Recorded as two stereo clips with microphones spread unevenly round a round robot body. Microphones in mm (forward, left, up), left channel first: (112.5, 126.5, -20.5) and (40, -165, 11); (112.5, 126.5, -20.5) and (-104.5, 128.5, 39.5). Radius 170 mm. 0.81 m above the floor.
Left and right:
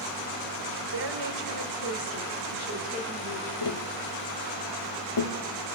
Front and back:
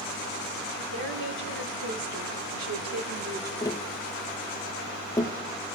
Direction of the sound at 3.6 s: 70° left.